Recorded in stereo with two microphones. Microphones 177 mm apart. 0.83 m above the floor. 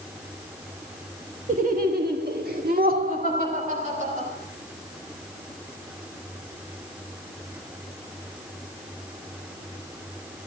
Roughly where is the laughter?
Right.